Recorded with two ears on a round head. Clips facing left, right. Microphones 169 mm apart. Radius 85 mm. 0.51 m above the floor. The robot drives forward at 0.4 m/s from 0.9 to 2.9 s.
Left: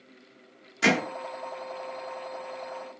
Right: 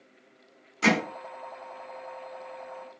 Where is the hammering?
10° left (ahead or behind), 1.1 m.